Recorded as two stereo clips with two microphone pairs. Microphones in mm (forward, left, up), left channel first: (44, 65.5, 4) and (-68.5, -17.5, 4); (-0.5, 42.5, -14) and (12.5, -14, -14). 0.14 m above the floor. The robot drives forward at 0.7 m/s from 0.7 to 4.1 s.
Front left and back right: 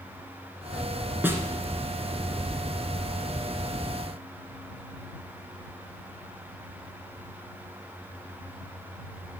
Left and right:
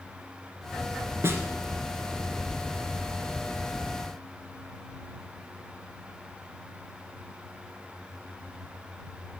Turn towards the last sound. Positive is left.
turn(degrees=-150)